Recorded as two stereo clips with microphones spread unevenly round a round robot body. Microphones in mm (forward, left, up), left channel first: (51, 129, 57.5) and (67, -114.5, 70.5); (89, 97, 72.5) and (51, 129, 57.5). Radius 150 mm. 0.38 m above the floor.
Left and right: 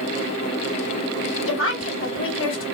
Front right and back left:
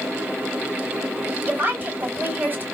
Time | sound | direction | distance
1.5 | a woman speaking | 110° left | 2.5 m